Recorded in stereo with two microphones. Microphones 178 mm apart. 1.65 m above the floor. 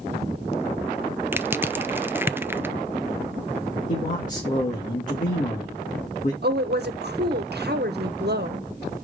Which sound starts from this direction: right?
A woman speaking, at 6.4 s.